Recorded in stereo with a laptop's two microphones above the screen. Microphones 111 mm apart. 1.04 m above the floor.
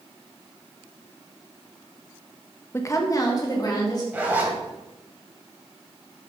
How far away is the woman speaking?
About 0.7 m.